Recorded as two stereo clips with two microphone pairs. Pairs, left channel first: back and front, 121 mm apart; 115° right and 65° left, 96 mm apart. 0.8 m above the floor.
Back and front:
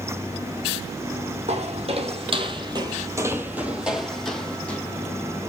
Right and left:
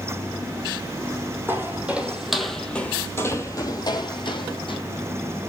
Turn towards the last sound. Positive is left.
turn(degrees=-105)